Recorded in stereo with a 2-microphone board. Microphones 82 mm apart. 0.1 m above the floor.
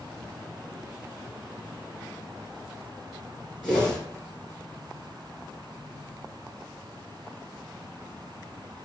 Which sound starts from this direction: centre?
A whoosh, at 3.6 s.